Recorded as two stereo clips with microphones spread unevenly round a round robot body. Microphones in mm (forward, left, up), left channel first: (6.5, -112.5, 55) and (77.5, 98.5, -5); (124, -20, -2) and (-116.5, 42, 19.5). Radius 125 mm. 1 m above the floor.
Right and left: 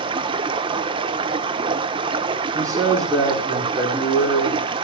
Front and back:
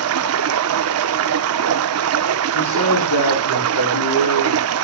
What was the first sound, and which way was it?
Running water, 150° left.